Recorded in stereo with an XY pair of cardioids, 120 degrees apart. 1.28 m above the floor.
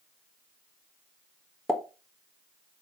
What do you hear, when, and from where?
1.7 s a pop: 10° left, 1.4 m